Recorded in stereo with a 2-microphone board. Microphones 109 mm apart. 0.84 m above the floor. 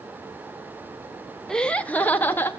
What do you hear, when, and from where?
1.5 s laughter: 5° left (ahead or behind), 0.5 m; by 2.5 s 20° left (ahead or behind), 1.1 m